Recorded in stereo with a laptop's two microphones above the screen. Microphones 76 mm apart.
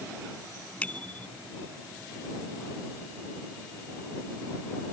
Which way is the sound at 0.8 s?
20° left (ahead or behind).